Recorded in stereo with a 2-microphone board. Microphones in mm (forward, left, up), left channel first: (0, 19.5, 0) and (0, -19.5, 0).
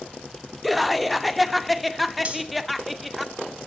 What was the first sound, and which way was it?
Laughter, 5° right (ahead or behind).